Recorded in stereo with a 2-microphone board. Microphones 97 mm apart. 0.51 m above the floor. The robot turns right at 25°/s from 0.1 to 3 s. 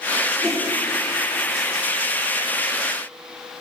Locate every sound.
0.4 s a whoosh: centre (ahead or behind), 2.5 m; by 0.6 s 5° left (ahead or behind), 2.5 m